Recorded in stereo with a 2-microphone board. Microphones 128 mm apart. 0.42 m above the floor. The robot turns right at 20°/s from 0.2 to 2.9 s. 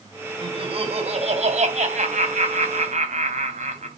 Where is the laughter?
135° right, 3 m; by 3.9 s 85° right, 3 m.